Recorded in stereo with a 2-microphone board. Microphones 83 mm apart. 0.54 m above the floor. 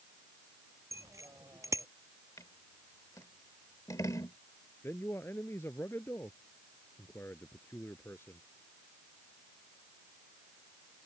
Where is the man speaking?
30° left (ahead or behind).